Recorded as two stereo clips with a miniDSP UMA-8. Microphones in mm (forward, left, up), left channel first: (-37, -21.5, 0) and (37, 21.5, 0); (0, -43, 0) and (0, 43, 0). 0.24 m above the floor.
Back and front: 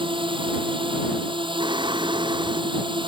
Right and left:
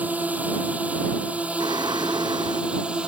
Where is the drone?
15° left; by 3.1 s 10° left.